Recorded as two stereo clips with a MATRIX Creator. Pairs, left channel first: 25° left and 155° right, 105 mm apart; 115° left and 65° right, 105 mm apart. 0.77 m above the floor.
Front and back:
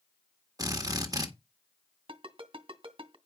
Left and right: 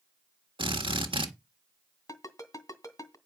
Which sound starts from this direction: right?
A drill, at 0.6 s.